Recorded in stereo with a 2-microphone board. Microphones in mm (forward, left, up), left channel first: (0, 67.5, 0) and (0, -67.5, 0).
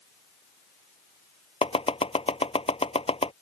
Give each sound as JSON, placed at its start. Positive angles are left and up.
{"t": 1.6, "sound": "chopping", "side_deg": 45}